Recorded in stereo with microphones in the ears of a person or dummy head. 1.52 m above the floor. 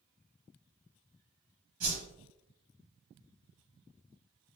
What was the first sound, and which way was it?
A whoosh, 45° right (ahead or behind).